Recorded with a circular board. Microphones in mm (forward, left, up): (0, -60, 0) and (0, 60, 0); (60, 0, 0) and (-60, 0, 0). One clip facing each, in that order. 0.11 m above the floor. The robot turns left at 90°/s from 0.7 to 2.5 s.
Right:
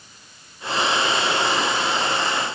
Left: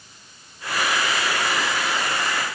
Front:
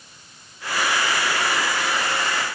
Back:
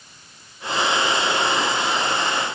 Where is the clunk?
I don't hear a clunk.